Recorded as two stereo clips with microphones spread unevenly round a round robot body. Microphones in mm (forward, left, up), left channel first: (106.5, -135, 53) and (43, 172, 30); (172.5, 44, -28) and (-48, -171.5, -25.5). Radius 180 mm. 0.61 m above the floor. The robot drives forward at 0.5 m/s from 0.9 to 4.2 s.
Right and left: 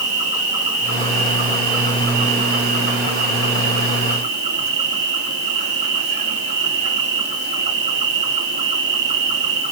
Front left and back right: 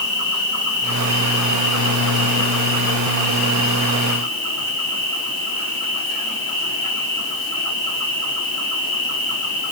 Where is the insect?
175° left, 4 m.